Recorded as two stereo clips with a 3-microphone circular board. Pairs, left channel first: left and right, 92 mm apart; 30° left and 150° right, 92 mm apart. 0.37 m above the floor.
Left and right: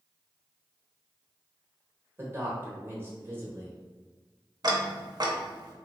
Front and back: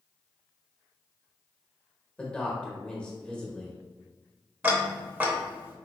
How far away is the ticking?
About 0.6 m.